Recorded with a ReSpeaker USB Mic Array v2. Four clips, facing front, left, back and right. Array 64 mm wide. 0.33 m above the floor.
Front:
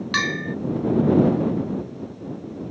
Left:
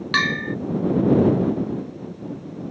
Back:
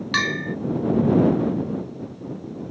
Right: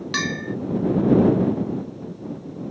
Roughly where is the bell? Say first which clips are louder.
Left 5 dB, back 1 dB; left.